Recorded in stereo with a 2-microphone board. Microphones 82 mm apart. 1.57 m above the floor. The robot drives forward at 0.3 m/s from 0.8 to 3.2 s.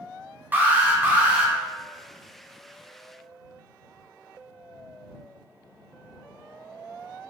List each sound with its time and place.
0.5 s an alarm: 20° right (ahead or behind), 0.6 m